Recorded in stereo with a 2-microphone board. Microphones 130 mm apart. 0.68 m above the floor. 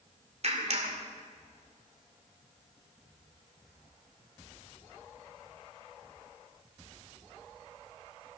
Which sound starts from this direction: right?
A clap, at 0.4 s.